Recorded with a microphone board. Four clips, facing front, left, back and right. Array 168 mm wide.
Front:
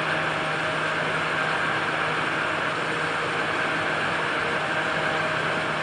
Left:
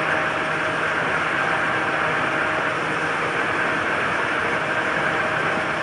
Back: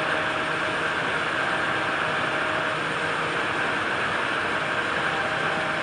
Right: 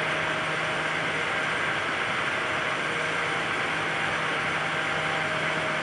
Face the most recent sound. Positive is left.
No sound to turn to.